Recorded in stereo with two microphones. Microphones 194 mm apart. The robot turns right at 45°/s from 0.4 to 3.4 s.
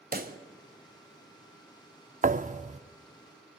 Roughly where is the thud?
Right.